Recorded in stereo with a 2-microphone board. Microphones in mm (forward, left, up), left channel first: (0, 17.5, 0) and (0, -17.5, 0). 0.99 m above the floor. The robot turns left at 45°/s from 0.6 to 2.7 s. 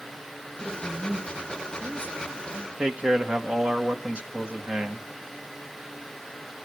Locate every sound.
0.6 s a woman speaking: 15° left, 4.5 m; by 2.7 s 75° right, 4.5 m
2.8 s a man speaking: 35° right (ahead or behind), 1.6 m